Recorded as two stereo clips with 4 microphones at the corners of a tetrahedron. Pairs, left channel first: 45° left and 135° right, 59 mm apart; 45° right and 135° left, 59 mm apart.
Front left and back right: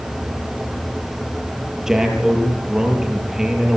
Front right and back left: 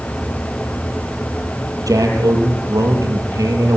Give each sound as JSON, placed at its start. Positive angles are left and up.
{"t": 1.9, "sound": "a man speaking", "azimuth_deg": 145, "distance_m": 7.5}